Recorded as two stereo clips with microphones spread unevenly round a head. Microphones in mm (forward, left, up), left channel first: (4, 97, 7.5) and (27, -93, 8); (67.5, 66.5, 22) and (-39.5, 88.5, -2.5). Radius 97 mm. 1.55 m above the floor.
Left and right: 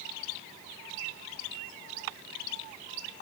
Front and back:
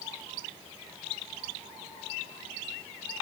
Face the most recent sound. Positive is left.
No sound to turn to.